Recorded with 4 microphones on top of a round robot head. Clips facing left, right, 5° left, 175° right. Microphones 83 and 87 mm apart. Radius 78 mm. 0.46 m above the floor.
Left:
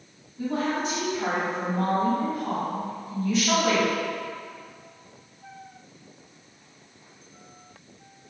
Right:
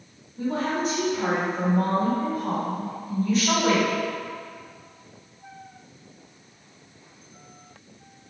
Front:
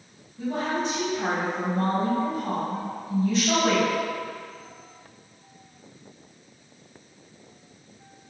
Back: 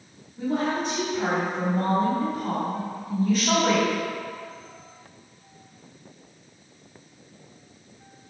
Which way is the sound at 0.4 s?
135° right.